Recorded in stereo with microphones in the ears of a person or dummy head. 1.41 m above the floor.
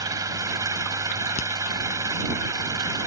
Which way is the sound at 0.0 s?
15° right (ahead or behind).